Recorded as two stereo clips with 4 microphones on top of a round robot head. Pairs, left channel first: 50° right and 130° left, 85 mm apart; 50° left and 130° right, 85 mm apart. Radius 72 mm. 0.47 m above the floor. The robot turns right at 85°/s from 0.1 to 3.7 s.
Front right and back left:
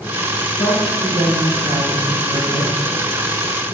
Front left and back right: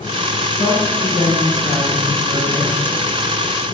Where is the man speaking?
20° left, 7 m; by 2.7 s 160° right, 7 m.